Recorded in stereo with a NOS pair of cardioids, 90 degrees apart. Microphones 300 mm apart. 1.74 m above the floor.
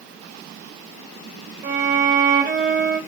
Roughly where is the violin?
Ahead right.